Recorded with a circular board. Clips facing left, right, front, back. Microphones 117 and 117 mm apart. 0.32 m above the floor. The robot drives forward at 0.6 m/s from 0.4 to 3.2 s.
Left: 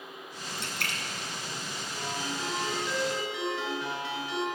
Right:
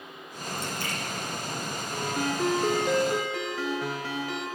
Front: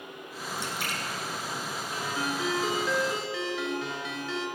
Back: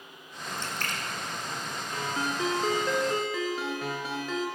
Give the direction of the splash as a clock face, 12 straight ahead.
9 o'clock.